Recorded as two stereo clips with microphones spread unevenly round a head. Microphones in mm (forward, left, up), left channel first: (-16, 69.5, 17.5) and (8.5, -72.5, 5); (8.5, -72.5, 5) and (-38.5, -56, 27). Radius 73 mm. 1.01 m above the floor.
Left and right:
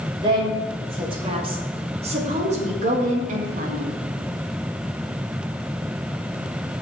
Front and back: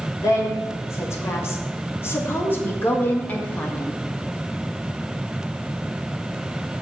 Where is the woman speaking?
20° right, 3 m; by 4.0 s 70° right, 1.6 m.